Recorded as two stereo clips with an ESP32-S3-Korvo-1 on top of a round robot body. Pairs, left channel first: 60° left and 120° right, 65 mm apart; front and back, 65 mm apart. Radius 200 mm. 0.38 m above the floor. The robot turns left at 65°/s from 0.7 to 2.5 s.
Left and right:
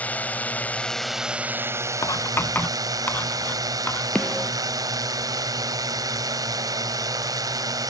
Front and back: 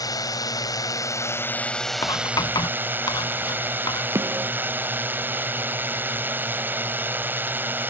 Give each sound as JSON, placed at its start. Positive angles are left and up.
{"t": 0.0, "sound": "a drone", "azimuth_deg": -5}
{"t": 2.0, "sound": "writing", "azimuth_deg": 30}
{"t": 4.2, "sound": "a snare drum", "azimuth_deg": 135}